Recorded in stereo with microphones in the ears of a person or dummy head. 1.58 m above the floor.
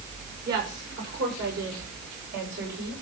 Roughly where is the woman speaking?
Right.